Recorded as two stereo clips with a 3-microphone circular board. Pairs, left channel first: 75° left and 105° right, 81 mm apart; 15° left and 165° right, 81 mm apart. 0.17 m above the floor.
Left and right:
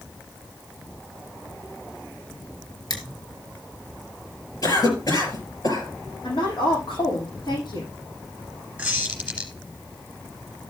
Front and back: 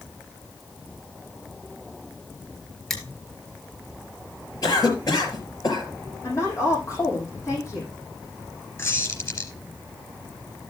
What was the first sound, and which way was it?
Crushing, 100° left.